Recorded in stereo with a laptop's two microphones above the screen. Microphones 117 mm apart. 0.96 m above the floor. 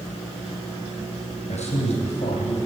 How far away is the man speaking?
About 4 m.